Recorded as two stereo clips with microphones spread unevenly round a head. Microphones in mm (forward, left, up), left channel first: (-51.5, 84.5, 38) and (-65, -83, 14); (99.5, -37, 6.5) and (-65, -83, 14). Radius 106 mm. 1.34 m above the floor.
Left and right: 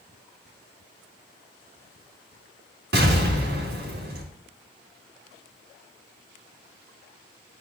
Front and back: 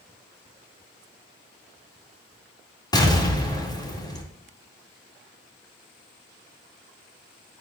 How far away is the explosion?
About 2.5 m.